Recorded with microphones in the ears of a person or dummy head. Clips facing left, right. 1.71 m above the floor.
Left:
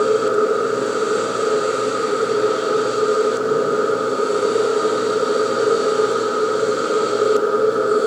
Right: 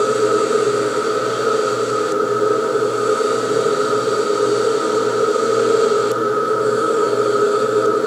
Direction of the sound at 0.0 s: 15° right (ahead or behind).